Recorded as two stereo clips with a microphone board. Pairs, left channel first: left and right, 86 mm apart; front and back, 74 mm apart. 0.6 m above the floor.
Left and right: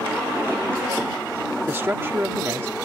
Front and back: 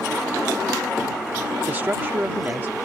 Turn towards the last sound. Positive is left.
turn(degrees=-135)